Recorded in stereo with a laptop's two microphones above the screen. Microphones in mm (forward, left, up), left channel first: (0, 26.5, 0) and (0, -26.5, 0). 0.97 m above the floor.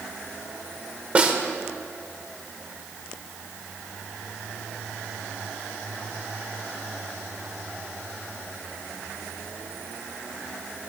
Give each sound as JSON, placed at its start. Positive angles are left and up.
{"t": 1.1, "sound": "a snare drum", "side_deg": -25, "distance_m": 1.2}